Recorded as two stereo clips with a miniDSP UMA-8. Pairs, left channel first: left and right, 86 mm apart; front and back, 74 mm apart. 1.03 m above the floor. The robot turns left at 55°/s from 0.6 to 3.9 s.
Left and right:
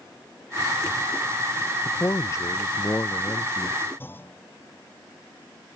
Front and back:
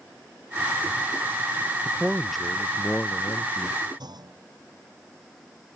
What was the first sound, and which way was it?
A man speaking, 115° left.